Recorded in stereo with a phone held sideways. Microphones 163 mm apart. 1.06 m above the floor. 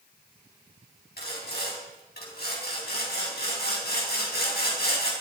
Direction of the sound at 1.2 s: 80° left.